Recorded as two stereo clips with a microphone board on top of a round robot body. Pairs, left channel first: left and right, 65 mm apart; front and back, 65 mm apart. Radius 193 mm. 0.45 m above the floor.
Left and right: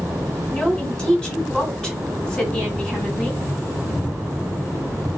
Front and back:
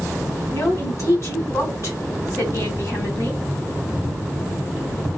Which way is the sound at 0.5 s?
15° left.